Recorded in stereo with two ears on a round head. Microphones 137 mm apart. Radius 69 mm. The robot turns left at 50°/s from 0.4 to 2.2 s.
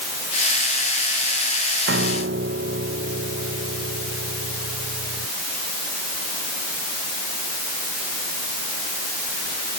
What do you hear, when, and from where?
1.9 s a piano: 85° right; by 5.3 s 80° right